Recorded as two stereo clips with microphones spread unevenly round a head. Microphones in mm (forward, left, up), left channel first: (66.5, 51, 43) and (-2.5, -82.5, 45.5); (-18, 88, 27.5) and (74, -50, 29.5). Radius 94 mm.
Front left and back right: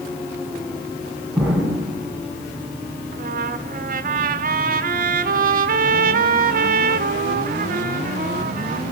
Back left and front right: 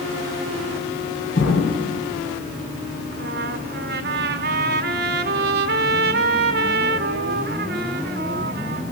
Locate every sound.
1.4 s an explosion: 160° left, 5.5 m
3.1 s a trumpet: 90° right, 1.5 m